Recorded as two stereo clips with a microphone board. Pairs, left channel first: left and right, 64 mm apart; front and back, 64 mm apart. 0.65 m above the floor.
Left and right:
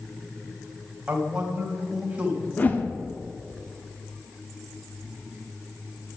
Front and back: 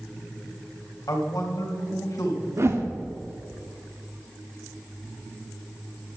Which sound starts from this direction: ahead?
A man speaking, at 1.1 s.